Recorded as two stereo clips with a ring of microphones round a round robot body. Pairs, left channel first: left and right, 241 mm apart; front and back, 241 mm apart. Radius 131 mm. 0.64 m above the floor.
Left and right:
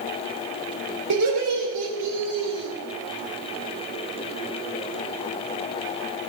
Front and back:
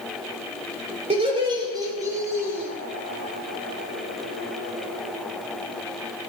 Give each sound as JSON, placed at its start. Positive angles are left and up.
{"t": 1.1, "sound": "laughter", "azimuth_deg": -115, "distance_m": 2.5}